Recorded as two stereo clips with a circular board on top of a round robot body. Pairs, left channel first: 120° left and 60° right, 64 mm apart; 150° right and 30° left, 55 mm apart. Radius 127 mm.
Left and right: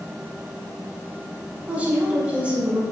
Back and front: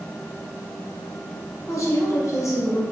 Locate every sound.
1.7 s a woman speaking: 130° right, 3.5 m